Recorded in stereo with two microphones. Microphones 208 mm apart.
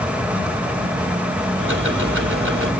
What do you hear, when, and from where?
1.6 s ticking: 85° right, 4 m